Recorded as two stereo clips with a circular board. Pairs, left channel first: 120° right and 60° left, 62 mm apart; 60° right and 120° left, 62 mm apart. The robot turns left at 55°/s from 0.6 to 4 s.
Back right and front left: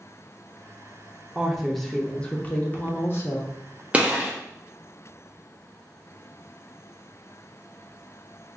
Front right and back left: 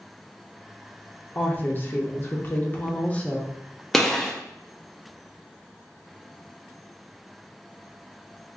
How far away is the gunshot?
About 0.9 m.